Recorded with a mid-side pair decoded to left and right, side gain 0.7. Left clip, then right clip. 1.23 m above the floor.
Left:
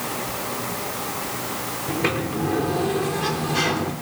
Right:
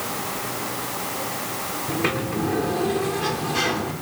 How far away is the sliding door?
About 2.5 m.